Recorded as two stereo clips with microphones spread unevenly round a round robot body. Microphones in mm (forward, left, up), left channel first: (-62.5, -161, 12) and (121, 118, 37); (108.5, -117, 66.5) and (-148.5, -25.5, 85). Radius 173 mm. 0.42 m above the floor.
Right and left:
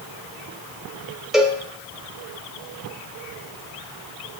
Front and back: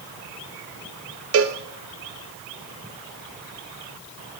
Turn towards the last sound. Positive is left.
turn(degrees=150)